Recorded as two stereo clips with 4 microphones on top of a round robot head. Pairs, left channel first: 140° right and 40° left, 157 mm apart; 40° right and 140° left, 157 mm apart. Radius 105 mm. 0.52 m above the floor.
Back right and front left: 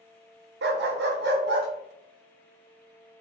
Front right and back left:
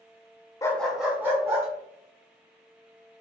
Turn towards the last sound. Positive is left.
turn(degrees=65)